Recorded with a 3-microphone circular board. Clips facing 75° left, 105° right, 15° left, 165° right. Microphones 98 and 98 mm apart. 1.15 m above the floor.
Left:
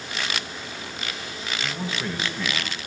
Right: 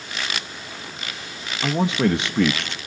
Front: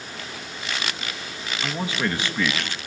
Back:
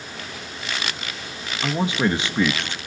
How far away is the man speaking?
About 1.2 m.